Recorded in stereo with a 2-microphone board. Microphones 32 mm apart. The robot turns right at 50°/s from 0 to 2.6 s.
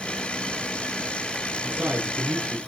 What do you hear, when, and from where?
1.6 s a man speaking: 70° right, 6.5 m; by 2.6 s 25° right, 6.5 m